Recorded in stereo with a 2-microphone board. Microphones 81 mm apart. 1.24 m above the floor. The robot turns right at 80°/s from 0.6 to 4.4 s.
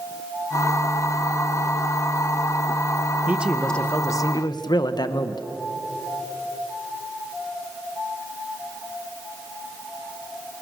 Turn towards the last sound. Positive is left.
turn(degrees=65)